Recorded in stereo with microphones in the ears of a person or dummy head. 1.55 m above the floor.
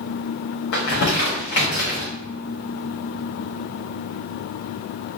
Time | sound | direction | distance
0.7 | crumpling | 45° left (ahead or behind) | 1.0 m